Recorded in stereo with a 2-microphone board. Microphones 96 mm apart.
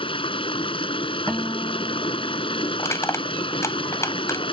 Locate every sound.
0.0 s running water: 70° left (ahead or behind)
1.3 s a guitar: 10° left (ahead or behind)
2.8 s crushing: 30° left (ahead or behind)